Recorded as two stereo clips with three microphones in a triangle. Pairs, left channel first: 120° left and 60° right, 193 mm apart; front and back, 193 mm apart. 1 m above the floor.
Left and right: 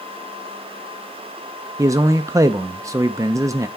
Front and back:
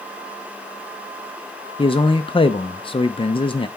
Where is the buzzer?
I don't hear a buzzer.